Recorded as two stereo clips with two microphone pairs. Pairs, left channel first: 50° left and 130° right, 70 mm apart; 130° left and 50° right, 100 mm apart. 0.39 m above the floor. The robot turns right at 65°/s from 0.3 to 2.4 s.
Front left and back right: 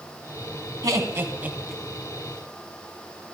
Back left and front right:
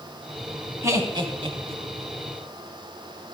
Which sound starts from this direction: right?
Laughter, at 0.8 s.